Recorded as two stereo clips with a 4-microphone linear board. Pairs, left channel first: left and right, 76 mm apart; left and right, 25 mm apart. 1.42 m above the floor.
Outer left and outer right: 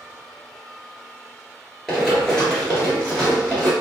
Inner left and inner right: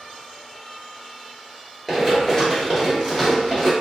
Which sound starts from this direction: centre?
Running footsteps, at 1.9 s.